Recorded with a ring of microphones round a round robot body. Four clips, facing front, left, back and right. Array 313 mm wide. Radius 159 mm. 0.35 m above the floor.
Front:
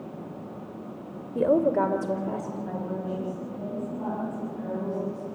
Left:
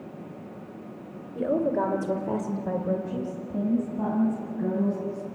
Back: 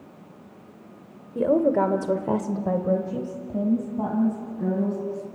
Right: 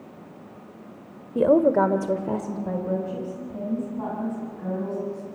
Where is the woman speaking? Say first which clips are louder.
Right 7 dB, back 2 dB; 85° right, 1.5 m; by 5.2 s 145° left, 5 m.